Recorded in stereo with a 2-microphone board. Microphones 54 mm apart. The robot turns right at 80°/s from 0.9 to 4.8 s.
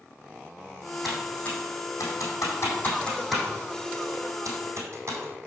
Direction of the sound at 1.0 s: Centre (ahead or behind).